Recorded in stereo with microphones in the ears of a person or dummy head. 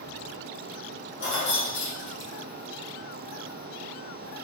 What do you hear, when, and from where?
1.2 s keys jangling: 55° left (ahead or behind), 0.6 m; by 2.3 s 80° left, 1.2 m